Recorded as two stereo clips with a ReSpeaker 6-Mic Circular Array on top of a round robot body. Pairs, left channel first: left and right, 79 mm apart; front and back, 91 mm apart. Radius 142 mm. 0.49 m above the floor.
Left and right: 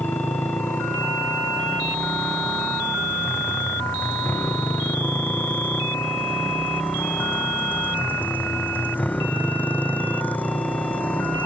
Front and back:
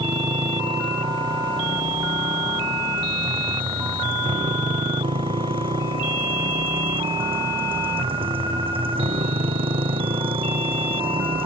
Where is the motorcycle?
155° left; by 11.5 s 165° left.